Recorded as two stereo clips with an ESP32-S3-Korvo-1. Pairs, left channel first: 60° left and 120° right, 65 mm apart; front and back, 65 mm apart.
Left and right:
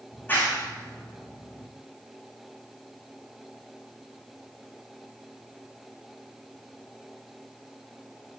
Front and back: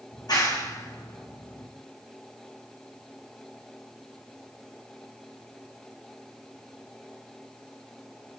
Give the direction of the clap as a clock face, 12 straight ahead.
12 o'clock.